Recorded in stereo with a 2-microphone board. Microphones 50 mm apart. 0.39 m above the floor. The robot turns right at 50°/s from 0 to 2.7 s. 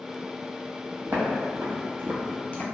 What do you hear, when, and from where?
1.1 s footsteps: 45° right (ahead or behind), 1.0 m; by 2.6 s 40° left (ahead or behind), 0.5 m